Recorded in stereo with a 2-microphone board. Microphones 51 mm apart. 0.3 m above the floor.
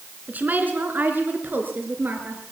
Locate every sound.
0.3 s a woman speaking: 35° right (ahead or behind), 3.5 m; by 2.4 s 45° right (ahead or behind), 5.5 m